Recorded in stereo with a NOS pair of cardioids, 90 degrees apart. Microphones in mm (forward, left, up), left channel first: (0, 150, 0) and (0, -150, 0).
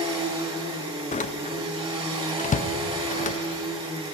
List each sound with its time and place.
0.0 s a machine running: 20° right, 1.8 m
1.1 s a door slam: 25° left, 0.5 m